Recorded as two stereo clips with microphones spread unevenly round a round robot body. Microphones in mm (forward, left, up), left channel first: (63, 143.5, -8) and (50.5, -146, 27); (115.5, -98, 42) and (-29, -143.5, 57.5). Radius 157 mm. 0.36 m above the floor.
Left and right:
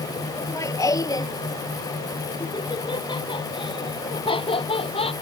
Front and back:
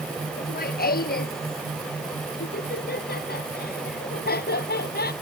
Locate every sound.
0.4 s laughter: 10° left; by 5.1 s 15° left